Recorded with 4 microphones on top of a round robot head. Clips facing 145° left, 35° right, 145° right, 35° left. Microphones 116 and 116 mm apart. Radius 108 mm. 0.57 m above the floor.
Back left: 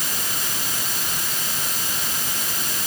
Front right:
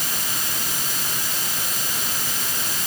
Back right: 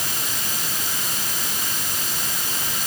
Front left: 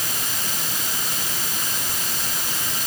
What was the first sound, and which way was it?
Only background noise.